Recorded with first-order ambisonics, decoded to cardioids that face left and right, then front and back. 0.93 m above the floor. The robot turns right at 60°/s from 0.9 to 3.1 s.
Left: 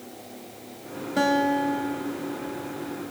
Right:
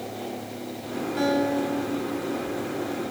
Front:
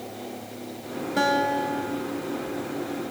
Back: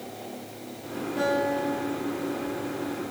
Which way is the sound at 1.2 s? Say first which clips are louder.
Left 2 dB, front 3 dB; 40° left.